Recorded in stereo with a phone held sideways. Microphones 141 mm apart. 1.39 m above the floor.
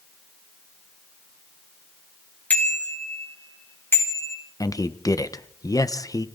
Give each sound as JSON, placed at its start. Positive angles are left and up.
{"t": 2.5, "sound": "a bicycle bell", "side_deg": 10, "distance_m": 3.0}
{"t": 4.6, "sound": "a man speaking", "side_deg": 25, "distance_m": 1.1}